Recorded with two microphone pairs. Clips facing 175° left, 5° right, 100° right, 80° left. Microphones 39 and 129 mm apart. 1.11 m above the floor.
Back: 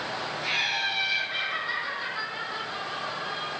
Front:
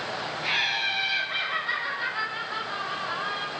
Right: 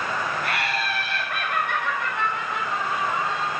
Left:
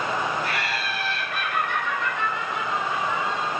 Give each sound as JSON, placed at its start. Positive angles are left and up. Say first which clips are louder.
{"t": 0.4, "sound": "laughter", "louder": "front 2 dB, right 1 dB", "azimuth_deg": -80, "distance_m": 4.0}